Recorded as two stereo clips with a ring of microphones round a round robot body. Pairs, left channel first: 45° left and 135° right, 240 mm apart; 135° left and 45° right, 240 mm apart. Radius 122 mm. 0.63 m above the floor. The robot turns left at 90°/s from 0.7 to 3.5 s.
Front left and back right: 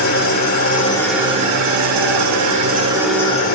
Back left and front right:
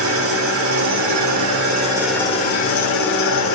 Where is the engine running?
10° right, 1.2 m; by 3.5 s 100° left, 1.2 m.